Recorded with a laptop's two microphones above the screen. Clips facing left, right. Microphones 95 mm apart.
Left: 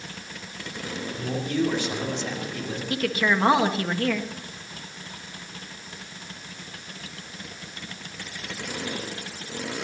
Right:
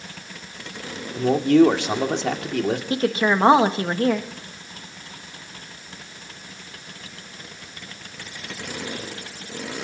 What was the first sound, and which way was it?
A man speaking, 80° right.